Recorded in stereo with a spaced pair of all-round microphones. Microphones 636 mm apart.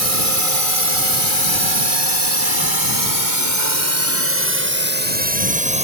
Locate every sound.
0.0 s a drone: 60° right (ahead or behind); by 5.8 s 10° right (ahead or behind)